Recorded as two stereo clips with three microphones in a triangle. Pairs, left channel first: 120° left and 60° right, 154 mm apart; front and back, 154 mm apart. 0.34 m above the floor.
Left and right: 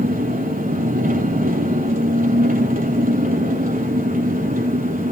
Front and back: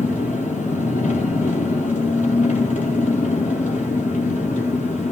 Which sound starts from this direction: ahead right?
An engine running, at 0.0 s.